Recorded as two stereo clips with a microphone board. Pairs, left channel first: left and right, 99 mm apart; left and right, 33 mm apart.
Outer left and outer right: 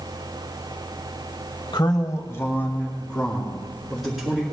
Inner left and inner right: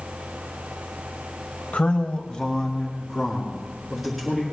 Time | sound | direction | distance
1.7 | a man speaking | 50° left (ahead or behind) | 1.4 m